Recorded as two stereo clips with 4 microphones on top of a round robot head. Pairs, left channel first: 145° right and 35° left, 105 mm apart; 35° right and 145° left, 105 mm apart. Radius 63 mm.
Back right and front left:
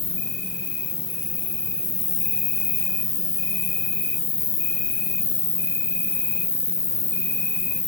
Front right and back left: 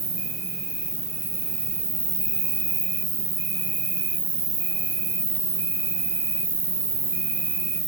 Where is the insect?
Straight behind, 1.3 m.